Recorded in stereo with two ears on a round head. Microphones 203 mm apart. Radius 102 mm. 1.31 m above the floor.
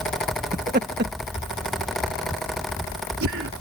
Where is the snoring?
I don't hear snoring.